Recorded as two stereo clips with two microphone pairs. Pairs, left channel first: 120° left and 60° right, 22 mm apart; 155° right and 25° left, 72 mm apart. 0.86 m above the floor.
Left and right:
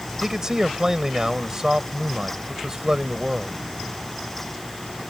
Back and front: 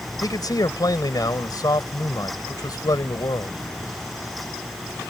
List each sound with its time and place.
0.2 s a man speaking: 125° right